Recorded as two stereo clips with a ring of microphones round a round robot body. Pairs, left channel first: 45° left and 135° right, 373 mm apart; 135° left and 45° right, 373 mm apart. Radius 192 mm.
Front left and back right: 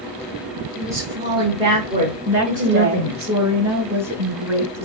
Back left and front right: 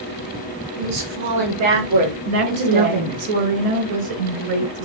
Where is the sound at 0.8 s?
50° right, 4 m; by 3.2 s 70° right, 5 m.